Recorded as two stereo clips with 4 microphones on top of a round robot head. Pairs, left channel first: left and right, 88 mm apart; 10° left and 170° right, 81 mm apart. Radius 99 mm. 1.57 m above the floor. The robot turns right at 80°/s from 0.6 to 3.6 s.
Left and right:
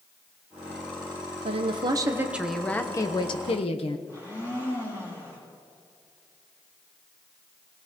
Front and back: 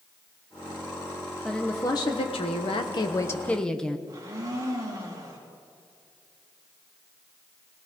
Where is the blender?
150° left, 3.5 m.